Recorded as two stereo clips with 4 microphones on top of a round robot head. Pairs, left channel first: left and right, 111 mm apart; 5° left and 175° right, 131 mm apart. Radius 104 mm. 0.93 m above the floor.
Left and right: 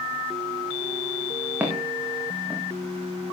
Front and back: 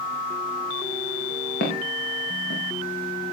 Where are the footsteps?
15° right, 5.5 m; by 2.6 s 10° right, 5.5 m.